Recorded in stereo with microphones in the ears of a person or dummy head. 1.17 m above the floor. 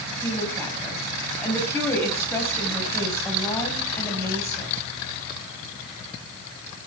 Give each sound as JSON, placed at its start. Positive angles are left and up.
{"t": 0.2, "sound": "a woman speaking", "side_deg": 15, "distance_m": 6.5}